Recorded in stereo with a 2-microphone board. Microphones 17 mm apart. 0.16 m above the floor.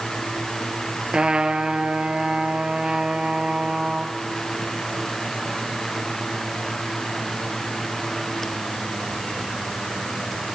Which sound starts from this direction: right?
A trumpet, at 1.1 s.